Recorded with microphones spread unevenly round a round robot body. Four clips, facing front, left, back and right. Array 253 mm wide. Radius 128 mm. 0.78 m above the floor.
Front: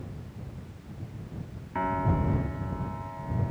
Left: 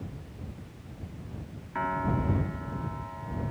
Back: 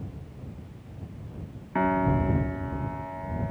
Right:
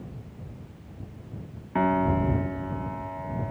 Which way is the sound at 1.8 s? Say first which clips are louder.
Right 6 dB, back 4 dB; 125° right.